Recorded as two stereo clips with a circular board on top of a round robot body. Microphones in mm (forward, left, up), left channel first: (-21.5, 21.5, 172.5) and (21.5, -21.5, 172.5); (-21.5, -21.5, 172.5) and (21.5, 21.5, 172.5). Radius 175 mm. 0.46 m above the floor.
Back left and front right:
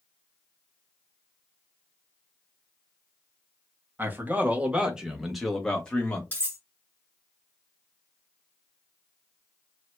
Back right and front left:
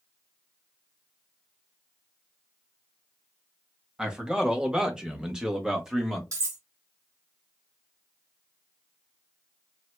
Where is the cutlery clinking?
70° left, 2.5 m.